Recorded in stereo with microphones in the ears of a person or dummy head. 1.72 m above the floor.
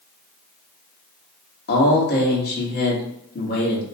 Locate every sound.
1.7 s a man speaking: 60° left (ahead or behind), 1.2 m